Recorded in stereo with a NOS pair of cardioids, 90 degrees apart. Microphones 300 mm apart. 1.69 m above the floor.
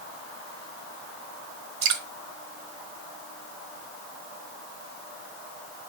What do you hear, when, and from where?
1.8 s dripping: 65° right, 1.2 m